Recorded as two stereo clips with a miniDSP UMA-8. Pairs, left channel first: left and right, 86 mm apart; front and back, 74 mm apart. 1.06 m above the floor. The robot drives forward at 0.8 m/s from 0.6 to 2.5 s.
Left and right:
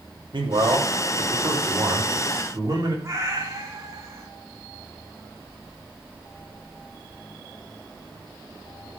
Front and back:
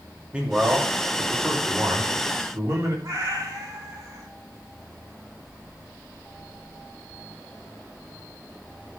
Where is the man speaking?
105° right, 2.5 m; by 2.9 s 135° right, 3.5 m.